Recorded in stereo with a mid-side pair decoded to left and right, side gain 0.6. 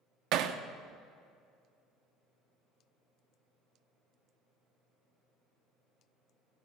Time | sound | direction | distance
0.3 | hammering | 65° right | 0.8 m